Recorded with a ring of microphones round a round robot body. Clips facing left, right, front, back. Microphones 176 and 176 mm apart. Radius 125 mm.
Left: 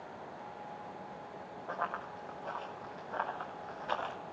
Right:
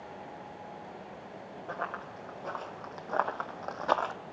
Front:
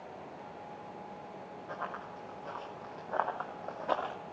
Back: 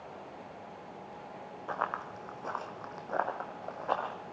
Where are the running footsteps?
160° right, 1.4 m; by 4.1 s 70° right, 1.0 m.